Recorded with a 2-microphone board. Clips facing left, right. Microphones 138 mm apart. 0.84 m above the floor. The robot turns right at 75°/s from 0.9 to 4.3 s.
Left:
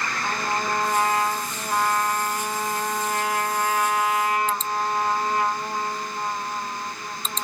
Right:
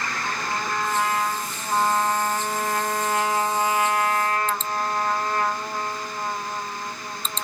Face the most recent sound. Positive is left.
turn(degrees=25)